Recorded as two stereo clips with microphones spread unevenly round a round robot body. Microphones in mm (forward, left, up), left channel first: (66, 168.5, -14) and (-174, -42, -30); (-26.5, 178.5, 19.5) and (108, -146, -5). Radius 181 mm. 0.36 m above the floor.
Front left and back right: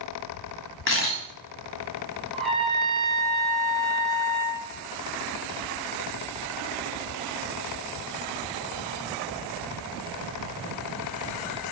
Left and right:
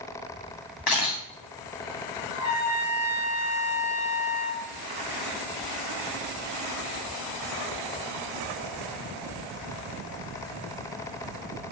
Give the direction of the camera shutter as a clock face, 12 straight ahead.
9 o'clock.